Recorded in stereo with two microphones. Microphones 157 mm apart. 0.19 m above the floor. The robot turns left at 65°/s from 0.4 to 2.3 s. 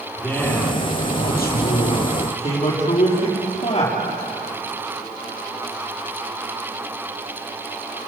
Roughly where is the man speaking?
Behind.